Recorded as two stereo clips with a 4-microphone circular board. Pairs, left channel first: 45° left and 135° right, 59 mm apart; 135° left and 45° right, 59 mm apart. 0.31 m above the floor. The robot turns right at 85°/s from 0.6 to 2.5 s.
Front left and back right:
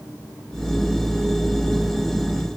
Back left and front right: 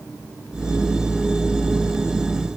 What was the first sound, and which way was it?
Only background noise.